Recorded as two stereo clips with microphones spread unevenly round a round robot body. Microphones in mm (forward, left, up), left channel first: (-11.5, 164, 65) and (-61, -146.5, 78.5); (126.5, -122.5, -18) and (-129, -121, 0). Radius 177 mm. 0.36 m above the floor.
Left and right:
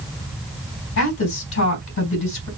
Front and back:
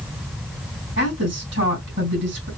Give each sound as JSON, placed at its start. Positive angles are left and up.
{"t": 1.0, "sound": "a woman speaking", "azimuth_deg": 120, "distance_m": 3.0}